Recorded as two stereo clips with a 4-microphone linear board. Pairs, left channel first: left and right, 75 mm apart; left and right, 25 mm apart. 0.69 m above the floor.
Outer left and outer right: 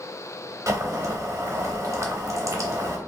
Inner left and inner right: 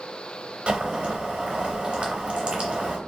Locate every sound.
0.7 s boiling: 45° right (ahead or behind), 0.6 m